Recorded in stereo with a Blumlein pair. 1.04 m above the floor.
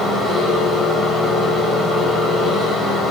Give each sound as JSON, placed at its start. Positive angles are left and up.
{"t": 0.0, "sound": "a machine running", "azimuth_deg": 0, "distance_m": 5.0}